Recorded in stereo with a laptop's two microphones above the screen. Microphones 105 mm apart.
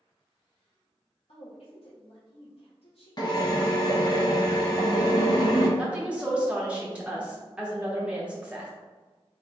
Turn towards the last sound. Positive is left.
turn(degrees=-10)  # may be behind; listen again after turning